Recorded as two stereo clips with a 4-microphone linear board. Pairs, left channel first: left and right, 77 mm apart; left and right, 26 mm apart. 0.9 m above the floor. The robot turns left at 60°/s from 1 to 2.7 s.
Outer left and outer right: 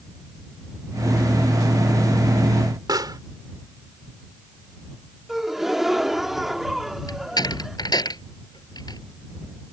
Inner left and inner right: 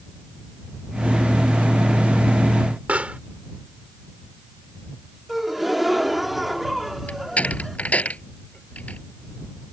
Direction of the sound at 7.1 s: 55° left (ahead or behind).